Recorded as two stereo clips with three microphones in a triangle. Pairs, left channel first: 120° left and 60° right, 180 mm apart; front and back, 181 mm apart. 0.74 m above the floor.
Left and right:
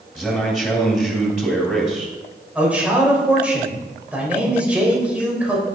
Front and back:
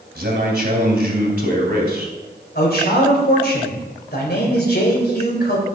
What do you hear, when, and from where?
0.1 s a man speaking: 150° right, 3.5 m
2.5 s a man speaking: 25° left, 3.5 m